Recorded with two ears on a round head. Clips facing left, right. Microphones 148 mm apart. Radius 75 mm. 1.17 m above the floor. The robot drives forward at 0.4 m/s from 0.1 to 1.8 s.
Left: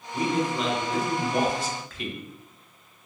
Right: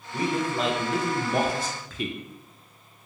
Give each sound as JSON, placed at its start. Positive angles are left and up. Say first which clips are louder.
{"t": 0.1, "sound": "a man speaking", "louder": "left 1 dB", "side_deg": -35, "distance_m": 1.0}